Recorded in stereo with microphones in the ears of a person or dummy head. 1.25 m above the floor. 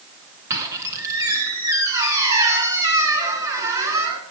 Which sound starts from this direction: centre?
A squeak, at 0.5 s.